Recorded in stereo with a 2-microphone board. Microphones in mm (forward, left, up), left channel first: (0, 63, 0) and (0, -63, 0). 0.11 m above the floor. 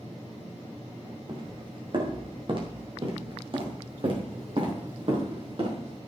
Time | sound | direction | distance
1.3 | footsteps | 40° right (ahead or behind) | 4 m